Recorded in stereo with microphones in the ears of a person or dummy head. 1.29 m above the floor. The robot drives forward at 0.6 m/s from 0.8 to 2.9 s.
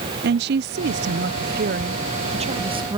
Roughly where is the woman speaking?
Right.